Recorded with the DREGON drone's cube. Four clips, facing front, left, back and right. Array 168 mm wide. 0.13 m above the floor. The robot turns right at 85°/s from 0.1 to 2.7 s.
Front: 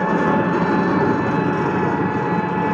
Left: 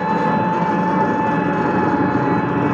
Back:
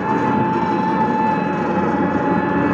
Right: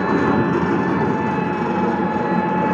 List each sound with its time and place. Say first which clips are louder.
0.0 s an engine running: even, even; 70° right, 0.8 m; by 2.7 s 155° left, 0.8 m